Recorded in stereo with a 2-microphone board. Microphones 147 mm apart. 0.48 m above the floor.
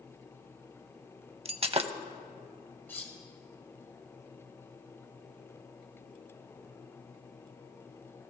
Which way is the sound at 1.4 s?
45° right (ahead or behind).